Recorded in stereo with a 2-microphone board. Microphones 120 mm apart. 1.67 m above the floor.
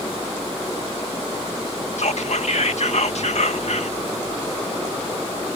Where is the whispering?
70° left (ahead or behind).